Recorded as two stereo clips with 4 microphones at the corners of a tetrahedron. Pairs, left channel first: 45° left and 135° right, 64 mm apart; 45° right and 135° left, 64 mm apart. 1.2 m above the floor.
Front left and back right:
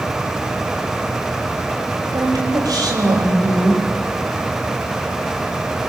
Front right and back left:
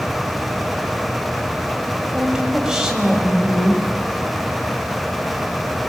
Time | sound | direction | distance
2.1 | a woman speaking | 145° right | 5.5 m